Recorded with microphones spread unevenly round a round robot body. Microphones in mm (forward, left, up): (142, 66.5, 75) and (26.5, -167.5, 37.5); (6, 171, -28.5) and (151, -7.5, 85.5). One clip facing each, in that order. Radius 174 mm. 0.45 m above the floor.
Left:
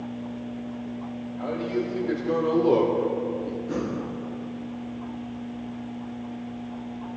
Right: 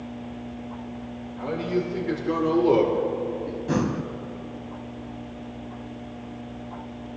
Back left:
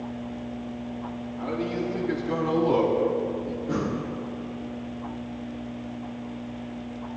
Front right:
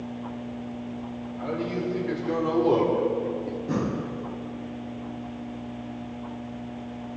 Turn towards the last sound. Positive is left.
turn(degrees=-100)